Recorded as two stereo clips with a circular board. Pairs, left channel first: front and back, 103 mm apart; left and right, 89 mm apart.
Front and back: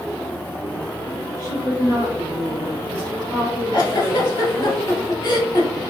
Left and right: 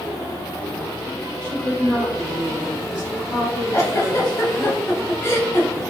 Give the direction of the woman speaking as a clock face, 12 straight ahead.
11 o'clock.